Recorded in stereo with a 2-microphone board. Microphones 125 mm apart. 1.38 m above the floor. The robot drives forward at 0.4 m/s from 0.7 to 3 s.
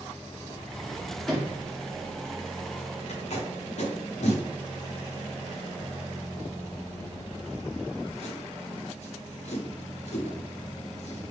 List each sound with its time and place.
1.3 s a sliding door: centre (ahead or behind), 1.4 m
3.1 s tape being pulled: 60° left (ahead or behind), 0.9 m